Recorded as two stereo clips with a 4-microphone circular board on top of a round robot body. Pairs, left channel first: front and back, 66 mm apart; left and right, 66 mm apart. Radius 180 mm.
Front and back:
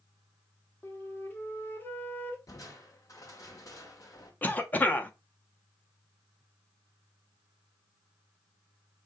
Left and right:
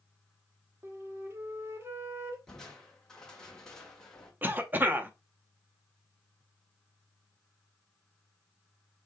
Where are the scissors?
I don't hear scissors.